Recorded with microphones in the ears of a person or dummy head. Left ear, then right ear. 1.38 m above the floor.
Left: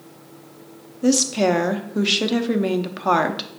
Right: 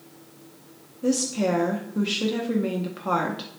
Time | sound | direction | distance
1.0 | a woman speaking | 30° left (ahead or behind) | 0.6 m